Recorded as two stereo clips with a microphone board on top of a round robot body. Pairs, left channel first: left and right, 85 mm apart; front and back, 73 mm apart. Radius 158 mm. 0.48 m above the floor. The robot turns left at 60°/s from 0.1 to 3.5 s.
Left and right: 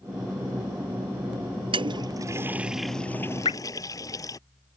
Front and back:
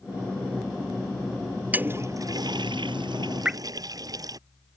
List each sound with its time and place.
1.7 s a toilet flushing: 110° right; by 4.4 s 140° left
3.5 s dripping: 105° left; by 3.6 s 100° left